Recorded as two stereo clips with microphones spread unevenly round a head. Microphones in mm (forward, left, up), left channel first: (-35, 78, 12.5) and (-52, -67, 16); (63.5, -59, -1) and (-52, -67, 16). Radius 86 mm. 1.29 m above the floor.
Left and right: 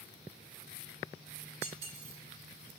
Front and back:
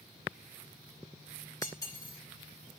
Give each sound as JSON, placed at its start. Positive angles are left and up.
{"t": 1.6, "sound": "cutlery clinking", "azimuth_deg": -60, "distance_m": 3.5}